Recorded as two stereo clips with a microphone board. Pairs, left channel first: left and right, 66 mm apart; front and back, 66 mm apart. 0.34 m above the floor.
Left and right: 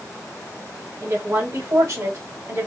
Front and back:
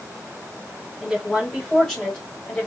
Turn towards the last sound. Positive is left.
turn(degrees=-70)